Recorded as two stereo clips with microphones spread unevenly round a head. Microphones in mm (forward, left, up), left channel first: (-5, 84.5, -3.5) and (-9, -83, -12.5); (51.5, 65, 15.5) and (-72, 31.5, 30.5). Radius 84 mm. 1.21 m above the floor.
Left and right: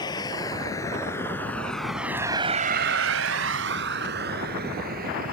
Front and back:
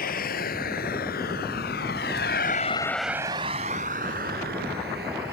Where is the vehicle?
20° left; by 5.3 s 135° right.